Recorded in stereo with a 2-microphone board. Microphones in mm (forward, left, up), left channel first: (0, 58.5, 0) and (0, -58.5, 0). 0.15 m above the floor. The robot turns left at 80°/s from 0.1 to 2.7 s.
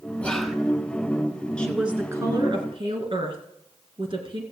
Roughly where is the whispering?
Centre.